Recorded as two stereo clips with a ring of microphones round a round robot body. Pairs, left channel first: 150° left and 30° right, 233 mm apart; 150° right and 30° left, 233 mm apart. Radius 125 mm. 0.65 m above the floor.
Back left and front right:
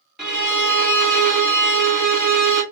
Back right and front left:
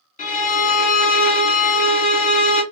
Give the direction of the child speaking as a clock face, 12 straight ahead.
No child speaking in this recording.